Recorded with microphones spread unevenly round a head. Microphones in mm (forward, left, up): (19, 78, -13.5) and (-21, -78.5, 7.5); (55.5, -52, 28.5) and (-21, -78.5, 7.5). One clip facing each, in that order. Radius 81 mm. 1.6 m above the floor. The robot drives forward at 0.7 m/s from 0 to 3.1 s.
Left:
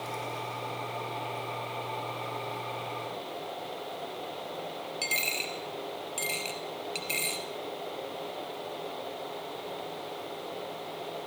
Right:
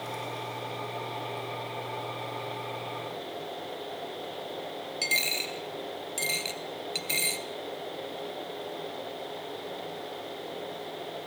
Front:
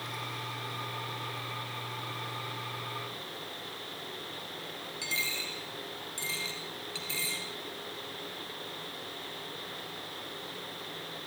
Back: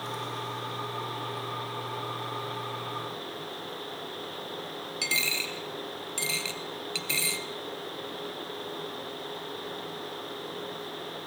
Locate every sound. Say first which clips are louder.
5.0 s a dropped coin: right 1 dB, back 4 dB; 165° right, 2 m